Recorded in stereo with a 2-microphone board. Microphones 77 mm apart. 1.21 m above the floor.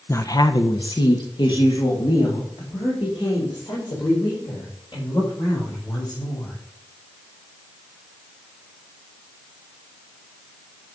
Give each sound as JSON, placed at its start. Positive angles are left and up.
{"t": 0.1, "sound": "a woman speaking", "side_deg": 35, "distance_m": 0.6}